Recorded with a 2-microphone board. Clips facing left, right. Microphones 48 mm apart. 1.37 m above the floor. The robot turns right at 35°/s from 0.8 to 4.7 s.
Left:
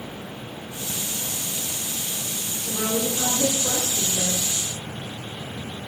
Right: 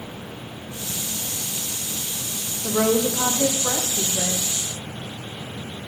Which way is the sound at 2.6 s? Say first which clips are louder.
Right 6 dB; 120° right.